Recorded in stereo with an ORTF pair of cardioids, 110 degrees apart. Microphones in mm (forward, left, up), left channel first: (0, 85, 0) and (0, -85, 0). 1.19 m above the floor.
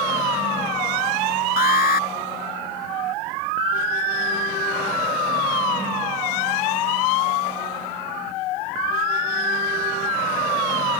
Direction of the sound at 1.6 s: 60° left.